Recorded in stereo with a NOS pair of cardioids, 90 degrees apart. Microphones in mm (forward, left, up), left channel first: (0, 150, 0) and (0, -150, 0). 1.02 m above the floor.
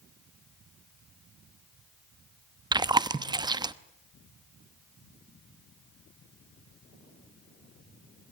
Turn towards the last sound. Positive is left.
turn(degrees=-15)